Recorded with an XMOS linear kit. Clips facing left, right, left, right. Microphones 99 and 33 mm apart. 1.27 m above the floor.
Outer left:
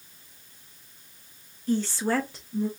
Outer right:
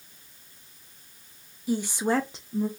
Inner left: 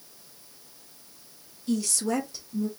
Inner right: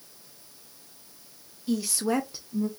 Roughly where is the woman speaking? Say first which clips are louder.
Even, even; centre.